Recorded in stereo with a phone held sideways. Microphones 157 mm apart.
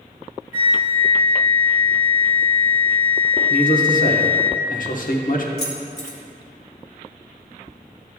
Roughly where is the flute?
Centre.